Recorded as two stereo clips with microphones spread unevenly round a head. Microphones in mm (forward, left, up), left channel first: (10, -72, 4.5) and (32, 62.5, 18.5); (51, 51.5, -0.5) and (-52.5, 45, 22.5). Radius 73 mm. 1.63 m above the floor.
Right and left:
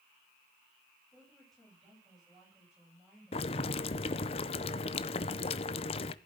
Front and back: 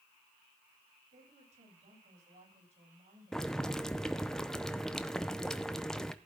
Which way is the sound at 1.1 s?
175° left.